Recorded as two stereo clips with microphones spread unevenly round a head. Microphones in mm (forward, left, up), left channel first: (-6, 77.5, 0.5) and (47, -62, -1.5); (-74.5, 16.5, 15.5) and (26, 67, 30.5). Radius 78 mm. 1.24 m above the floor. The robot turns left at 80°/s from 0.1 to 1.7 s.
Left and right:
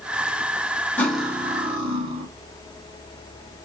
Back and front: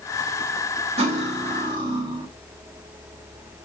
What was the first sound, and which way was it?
Cutlery clinking, 35° left.